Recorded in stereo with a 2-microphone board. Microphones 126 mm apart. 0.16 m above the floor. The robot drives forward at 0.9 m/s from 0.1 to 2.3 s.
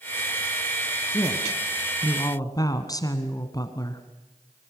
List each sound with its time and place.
1.1 s a woman speaking: 25° left (ahead or behind), 2 m; by 4.0 s 30° left (ahead or behind), 1.8 m